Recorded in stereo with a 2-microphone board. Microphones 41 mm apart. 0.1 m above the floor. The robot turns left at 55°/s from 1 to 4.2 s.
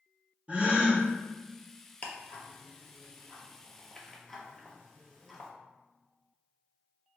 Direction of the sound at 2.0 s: 40° left (ahead or behind).